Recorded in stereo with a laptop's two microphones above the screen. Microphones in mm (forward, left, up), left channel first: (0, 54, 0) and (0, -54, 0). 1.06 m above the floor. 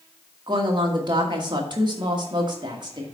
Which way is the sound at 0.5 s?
40° right (ahead or behind).